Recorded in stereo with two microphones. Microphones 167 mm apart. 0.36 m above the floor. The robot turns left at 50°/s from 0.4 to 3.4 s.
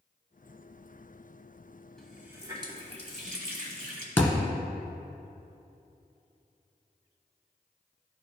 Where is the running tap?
5° left, 1.4 m; by 4.1 s 70° right, 1.4 m.